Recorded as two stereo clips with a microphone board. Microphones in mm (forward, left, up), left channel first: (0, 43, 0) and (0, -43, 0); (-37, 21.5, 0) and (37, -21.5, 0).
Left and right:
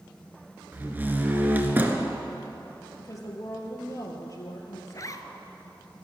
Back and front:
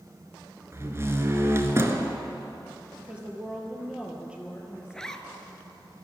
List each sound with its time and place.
0.7 s a door slam: 45° right, 1.0 m
3.0 s a woman speaking: 45° left, 2.5 m
4.9 s a zipper: 70° left, 0.8 m